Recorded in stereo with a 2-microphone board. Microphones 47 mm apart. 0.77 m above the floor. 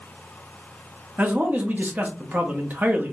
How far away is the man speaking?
About 0.7 m.